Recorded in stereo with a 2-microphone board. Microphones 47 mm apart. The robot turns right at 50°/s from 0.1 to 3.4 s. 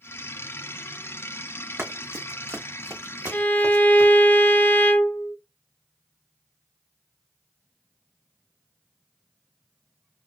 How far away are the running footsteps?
About 1.1 m.